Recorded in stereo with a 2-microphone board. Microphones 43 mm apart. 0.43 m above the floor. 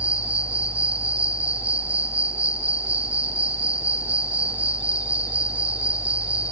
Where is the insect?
30° right (ahead or behind), 4.5 m.